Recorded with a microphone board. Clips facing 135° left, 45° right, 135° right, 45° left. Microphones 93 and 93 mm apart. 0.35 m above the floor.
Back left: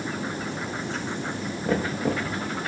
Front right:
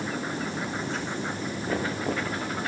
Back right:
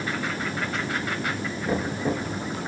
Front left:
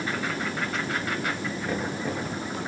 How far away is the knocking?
About 7.5 m.